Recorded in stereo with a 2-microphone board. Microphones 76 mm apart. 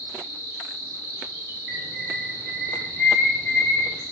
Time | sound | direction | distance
0.0 | an insect | 40° right (ahead or behind) | 1.1 m
1.7 | a bird | 5° right (ahead or behind) | 0.8 m